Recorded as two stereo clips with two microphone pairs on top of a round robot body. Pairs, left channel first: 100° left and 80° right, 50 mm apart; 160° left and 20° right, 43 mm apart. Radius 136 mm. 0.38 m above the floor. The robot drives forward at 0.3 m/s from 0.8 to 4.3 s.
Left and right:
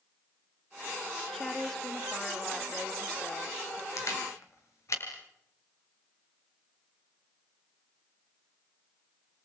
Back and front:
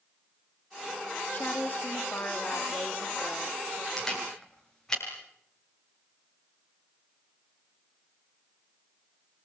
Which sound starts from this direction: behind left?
A woman speaking, at 1.3 s.